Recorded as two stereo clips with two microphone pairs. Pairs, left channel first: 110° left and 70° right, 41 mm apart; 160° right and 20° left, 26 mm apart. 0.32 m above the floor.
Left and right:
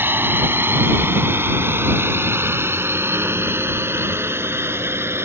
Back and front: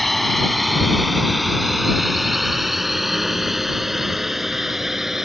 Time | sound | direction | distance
0.0 | a drone | 80° right | ?